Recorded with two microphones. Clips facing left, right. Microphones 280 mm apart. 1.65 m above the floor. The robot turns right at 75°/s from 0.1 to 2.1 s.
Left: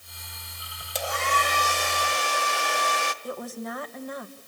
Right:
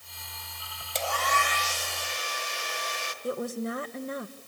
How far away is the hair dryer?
About 1.0 m.